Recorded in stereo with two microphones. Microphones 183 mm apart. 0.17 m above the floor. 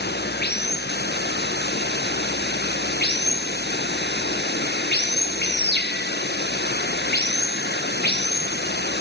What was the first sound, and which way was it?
Running water, 65° left (ahead or behind).